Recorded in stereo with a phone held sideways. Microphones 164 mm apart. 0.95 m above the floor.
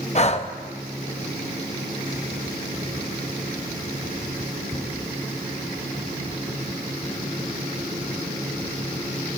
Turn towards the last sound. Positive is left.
turn(degrees=40)  # may be behind; listen again after turning